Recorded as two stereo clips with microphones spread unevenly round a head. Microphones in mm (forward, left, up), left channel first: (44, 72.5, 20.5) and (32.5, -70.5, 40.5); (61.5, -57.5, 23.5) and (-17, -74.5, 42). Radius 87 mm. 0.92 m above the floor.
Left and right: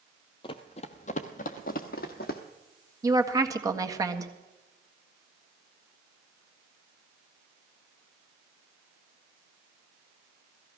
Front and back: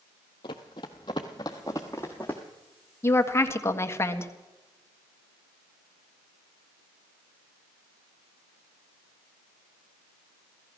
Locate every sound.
0.4 s running footsteps: 40° left, 1.1 m; by 2.4 s 100° left, 1.5 m
3.0 s a woman speaking: 30° right, 1.6 m